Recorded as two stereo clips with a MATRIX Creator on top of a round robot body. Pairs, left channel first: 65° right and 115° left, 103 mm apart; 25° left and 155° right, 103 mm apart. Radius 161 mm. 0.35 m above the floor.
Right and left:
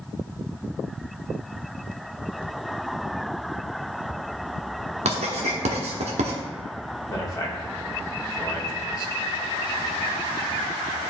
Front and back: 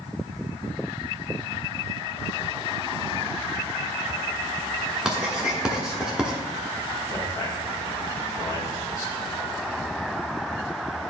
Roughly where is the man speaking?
Ahead right.